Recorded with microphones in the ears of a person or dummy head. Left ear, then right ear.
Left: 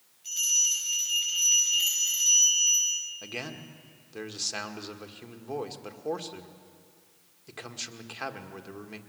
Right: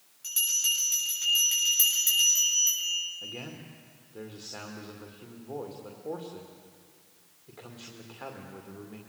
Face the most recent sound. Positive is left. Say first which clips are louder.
# left 3 dB
turn(degrees=70)  # may be behind; listen again after turning